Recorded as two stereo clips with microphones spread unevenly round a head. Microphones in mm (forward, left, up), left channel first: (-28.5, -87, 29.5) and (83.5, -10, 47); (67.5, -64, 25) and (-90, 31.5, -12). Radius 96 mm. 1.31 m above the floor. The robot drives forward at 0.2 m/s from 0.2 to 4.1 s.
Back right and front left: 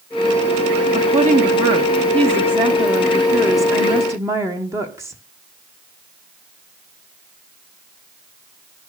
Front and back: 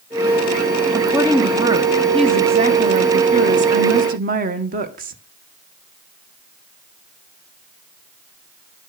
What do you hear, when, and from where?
0.9 s a woman speaking: 80° left, 1.2 m; by 5.2 s 110° left, 1.3 m